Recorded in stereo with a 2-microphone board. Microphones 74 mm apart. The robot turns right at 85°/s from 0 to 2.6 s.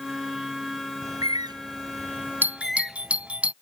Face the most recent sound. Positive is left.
turn(degrees=-15)  # may be behind; listen again after turning